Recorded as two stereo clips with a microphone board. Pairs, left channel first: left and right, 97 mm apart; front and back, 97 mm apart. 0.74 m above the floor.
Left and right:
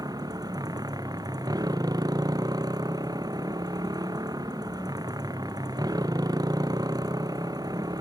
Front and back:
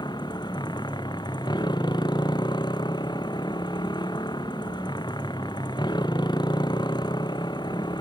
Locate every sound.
0.0 s a motorcycle: 40° right